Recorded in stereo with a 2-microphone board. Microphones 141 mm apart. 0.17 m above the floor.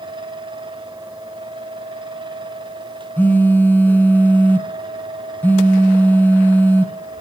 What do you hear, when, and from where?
3.2 s a phone buzzing: 15° left (ahead or behind), 0.8 m